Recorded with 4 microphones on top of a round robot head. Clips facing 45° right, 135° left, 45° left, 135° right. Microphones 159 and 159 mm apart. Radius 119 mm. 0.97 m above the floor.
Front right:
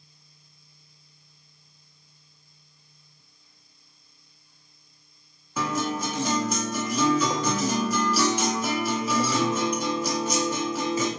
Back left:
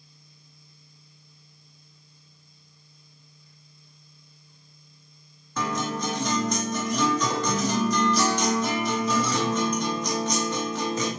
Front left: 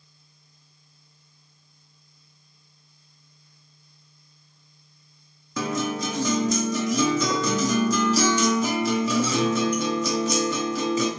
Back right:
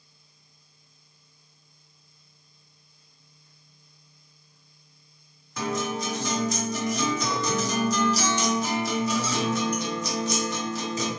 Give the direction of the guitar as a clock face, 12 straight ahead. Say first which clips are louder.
Front right 1 dB, front left 2 dB; 11 o'clock.